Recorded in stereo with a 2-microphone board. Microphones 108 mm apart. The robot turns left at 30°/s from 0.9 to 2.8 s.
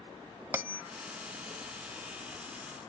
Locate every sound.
0.5 s a bell: 20° right (ahead or behind), 0.6 m